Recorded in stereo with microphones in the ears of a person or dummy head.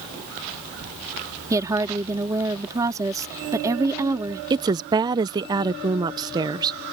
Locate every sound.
1.5 s a woman speaking: 15° right (ahead or behind)
4.5 s a woman speaking: 20° right (ahead or behind)